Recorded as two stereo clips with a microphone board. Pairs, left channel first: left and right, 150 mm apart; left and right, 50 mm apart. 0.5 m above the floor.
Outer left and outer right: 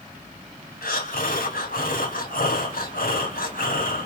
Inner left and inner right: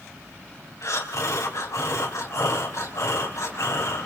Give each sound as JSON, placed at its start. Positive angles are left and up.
{"t": 0.8, "sound": "breathing", "side_deg": 70, "distance_m": 3.5}